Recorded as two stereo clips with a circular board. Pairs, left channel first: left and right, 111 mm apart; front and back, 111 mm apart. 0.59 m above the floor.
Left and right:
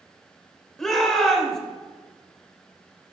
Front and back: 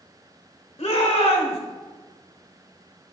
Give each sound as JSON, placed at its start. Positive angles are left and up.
{"t": 0.8, "sound": "a shout", "azimuth_deg": 5, "distance_m": 1.8}